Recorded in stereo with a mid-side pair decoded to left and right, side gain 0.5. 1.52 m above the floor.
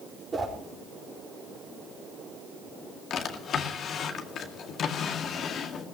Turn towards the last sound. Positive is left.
turn(degrees=55)